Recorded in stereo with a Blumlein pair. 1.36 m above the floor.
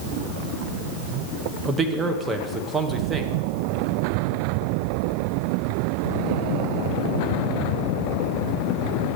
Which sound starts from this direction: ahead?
A man speaking, at 1.6 s.